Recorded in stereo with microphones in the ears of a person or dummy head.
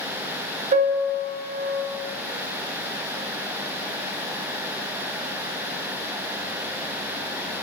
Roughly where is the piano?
Right.